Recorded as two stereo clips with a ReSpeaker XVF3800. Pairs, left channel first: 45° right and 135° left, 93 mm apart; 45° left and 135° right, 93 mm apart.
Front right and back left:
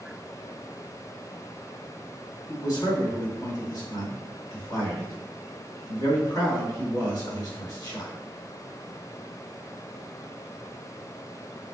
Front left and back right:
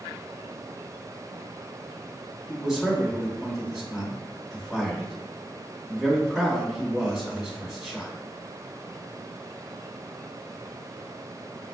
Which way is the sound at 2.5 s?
50° right.